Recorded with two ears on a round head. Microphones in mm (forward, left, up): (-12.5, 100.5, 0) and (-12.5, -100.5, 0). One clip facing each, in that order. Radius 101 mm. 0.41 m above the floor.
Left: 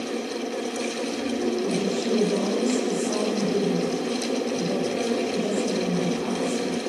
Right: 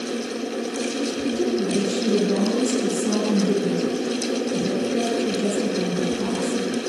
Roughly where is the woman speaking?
Right.